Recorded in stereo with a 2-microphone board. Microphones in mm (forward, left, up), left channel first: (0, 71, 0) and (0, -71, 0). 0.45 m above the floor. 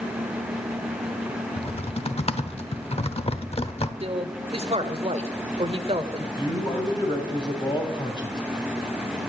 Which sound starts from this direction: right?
A man speaking, at 4.0 s.